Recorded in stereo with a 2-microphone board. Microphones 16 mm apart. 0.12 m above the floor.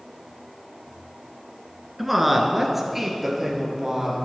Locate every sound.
2.0 s a woman speaking: 5° right (ahead or behind), 1.1 m; by 4.2 s 20° right (ahead or behind), 2.5 m